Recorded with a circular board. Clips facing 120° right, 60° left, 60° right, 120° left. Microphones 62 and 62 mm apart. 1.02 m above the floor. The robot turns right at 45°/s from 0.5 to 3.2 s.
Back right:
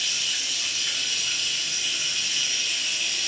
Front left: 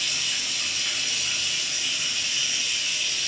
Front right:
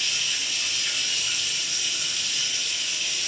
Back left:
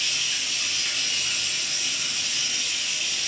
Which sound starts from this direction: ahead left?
Running water, at 0.0 s.